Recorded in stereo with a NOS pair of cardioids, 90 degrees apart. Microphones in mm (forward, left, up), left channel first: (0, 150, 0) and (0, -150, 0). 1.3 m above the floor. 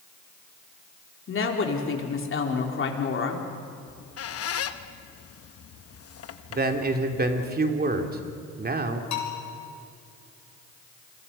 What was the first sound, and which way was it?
A woman speaking, 40° left.